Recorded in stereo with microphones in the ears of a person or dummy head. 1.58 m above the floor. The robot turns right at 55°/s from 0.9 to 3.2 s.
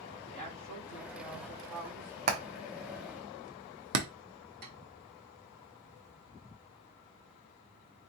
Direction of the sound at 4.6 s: 50° right (ahead or behind).